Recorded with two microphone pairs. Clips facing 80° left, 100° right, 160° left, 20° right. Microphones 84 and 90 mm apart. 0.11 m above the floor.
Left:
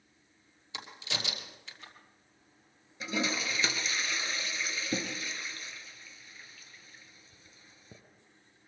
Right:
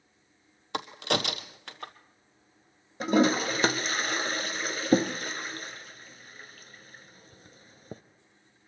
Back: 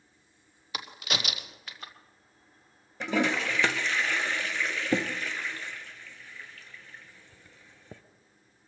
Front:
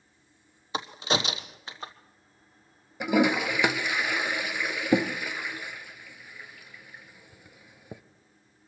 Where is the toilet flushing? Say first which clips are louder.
Right 11 dB, front 4 dB; 95° right, 0.7 m.